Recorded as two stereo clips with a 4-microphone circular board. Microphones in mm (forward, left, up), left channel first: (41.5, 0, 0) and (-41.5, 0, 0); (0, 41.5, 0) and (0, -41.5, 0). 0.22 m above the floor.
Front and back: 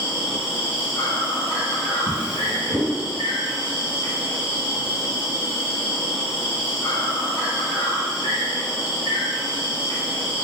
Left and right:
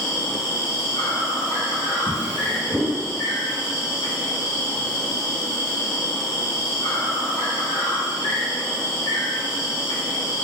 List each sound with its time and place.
0.0 s an insect: 55° left, 1.9 m
2.1 s a drawer: 165° right, 1.7 m